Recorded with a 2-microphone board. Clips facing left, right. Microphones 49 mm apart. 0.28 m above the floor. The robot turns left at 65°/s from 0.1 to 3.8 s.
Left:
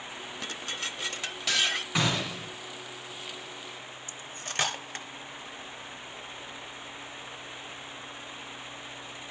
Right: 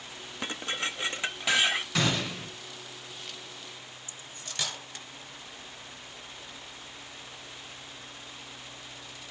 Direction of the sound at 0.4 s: 20° right (ahead or behind).